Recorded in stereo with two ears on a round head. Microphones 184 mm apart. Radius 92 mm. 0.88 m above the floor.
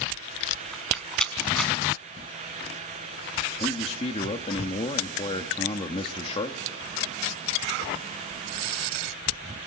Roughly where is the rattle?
Centre.